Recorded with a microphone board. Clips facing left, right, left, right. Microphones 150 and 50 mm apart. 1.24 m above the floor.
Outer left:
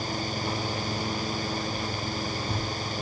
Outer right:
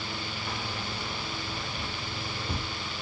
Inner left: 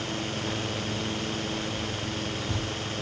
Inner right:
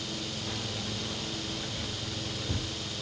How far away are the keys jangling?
About 1.1 m.